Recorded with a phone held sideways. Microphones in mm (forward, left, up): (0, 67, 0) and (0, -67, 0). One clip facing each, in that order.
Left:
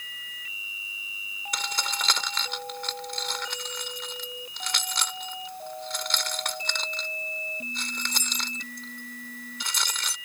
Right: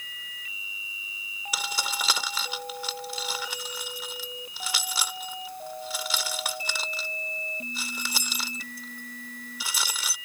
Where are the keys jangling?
5° right (ahead or behind).